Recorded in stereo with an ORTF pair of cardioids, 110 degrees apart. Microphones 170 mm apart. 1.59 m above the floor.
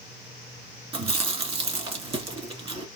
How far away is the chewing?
About 2.5 m.